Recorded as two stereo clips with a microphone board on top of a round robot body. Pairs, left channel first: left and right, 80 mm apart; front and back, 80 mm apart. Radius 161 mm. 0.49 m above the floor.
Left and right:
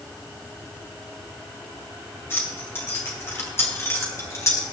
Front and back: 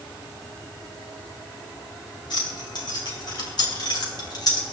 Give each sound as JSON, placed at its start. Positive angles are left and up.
{"t": 2.3, "sound": "keys jangling", "azimuth_deg": 30, "distance_m": 4.5}